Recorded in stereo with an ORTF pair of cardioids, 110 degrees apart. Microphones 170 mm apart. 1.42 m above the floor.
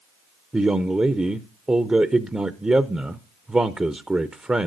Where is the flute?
I don't hear a flute.